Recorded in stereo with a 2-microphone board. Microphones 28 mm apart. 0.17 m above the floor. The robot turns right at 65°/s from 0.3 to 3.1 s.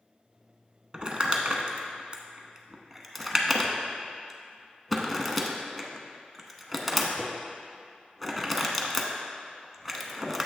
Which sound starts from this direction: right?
Crumpling, at 0.9 s.